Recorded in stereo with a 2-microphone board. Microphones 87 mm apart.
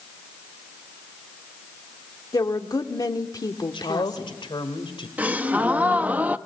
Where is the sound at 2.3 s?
50° left (ahead or behind), 1.4 m.